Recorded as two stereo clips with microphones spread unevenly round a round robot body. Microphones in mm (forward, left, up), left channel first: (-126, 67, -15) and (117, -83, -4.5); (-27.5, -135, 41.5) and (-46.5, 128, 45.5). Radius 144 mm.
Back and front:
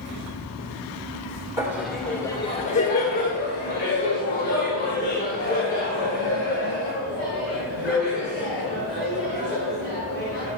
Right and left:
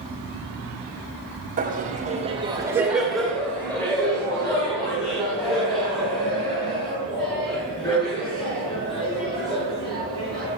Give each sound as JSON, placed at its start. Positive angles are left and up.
{"t": 1.6, "sound": "laughter", "azimuth_deg": 45, "distance_m": 1.7}